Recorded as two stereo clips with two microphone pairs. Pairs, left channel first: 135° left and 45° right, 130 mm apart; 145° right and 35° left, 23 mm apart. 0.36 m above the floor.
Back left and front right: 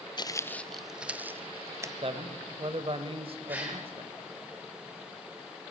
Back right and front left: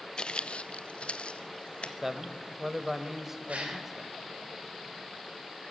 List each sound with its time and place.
0.2 s footsteps: 175° left, 0.5 m; by 1.9 s 115° right, 1.3 m
2.0 s a man speaking: 35° right, 1.3 m
3.5 s a gasp: 30° left, 6 m